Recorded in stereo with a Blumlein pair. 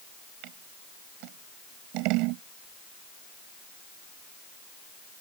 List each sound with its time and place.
0.4 s scissors: 40° right